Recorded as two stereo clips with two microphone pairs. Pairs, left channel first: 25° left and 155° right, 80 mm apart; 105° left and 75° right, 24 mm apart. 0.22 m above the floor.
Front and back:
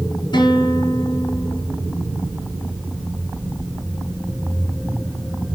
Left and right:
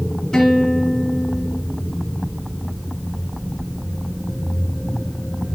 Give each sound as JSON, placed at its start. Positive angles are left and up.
{"t": 0.3, "sound": "a guitar", "azimuth_deg": 35, "distance_m": 3.0}